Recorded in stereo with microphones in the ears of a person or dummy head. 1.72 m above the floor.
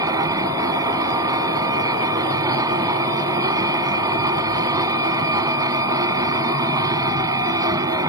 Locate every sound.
0.0 s a machine running: 20° right (ahead or behind)